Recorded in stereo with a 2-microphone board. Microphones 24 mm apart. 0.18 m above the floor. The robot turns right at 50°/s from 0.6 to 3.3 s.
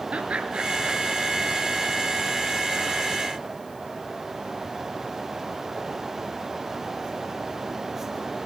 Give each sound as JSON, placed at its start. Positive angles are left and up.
{"t": 0.1, "sound": "laughter", "side_deg": -55, "distance_m": 3.0}